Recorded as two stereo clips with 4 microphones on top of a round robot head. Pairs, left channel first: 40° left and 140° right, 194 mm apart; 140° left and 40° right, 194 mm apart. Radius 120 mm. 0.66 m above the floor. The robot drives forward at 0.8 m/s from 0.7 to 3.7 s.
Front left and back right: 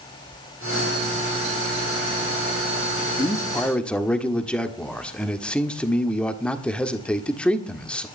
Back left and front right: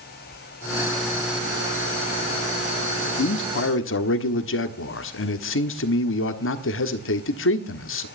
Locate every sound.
3.2 s a man speaking: 110° left, 1.3 m; by 8.1 s 125° left, 1.5 m